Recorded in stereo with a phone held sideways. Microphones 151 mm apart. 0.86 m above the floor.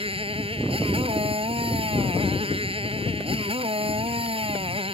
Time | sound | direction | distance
0.0 | a motorcycle | 40° right (ahead or behind) | ?